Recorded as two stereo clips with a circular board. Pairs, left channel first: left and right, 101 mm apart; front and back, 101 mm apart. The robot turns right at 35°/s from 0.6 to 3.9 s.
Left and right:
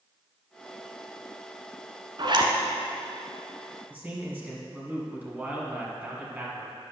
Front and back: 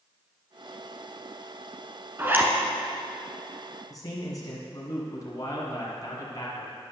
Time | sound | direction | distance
2.2 | a zipper | 120° right | 1.3 m
3.9 | a man speaking | 25° right | 2.0 m